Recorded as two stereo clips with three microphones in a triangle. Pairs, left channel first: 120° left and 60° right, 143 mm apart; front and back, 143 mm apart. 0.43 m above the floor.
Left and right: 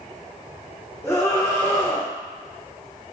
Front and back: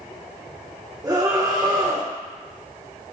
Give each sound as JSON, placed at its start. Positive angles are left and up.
{"t": 1.0, "sound": "a scream", "azimuth_deg": 165, "distance_m": 1.0}